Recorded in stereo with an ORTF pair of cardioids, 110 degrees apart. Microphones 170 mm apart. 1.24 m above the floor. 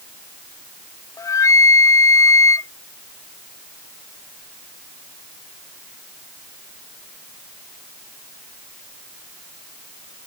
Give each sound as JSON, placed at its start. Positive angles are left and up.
{"t": 1.2, "sound": "a flute", "azimuth_deg": 20}